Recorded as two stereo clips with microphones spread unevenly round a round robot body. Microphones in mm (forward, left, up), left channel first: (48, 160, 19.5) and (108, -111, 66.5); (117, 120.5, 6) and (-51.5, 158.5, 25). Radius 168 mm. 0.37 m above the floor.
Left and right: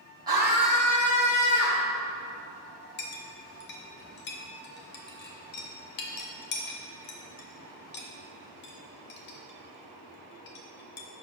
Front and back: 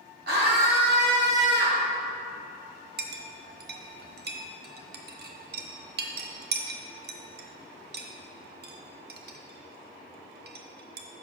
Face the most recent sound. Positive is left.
turn(degrees=145)